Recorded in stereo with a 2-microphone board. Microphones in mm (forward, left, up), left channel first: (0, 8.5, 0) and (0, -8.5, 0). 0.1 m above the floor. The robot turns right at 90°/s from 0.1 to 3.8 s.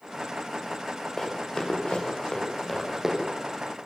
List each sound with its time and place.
1.2 s running footsteps: 15° left (ahead or behind), 8 m; by 3.1 s 25° right (ahead or behind), 8.5 m